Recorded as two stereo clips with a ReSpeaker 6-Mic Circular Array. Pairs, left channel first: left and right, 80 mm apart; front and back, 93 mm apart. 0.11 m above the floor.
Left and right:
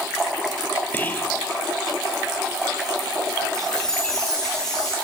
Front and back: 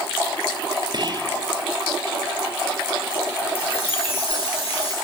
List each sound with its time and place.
0.9 s whispering: 155° left, 3 m
3.5 s a chime: 5° left, 7.5 m